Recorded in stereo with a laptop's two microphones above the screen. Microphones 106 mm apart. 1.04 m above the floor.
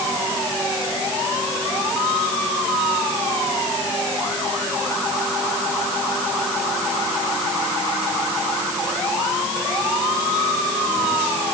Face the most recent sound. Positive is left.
No sound to turn to.